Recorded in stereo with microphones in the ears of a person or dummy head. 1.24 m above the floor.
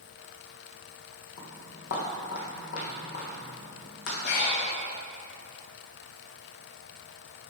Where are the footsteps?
55° left (ahead or behind), 2.5 m; by 4.2 s 70° left (ahead or behind), 4.5 m.